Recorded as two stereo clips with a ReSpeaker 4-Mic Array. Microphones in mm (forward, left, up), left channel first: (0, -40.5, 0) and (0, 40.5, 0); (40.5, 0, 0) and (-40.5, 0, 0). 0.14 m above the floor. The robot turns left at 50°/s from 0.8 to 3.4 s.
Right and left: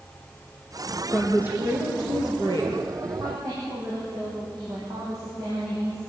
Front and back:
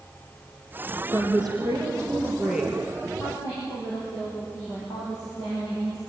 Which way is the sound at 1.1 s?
170° left.